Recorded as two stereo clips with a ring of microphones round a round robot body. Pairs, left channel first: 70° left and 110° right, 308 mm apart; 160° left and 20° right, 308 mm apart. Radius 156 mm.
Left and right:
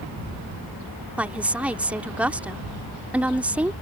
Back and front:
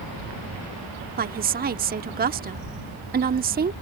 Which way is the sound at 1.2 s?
30° right.